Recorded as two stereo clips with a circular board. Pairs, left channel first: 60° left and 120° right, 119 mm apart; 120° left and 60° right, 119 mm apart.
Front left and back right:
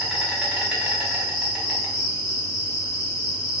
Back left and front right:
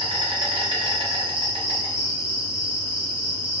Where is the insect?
35° right, 0.8 m.